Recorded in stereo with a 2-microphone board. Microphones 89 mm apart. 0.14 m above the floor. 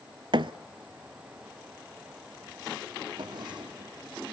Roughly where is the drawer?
Right.